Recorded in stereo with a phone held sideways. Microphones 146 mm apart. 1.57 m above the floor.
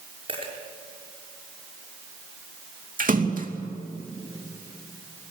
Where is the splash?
70° right (ahead or behind), 2.5 m.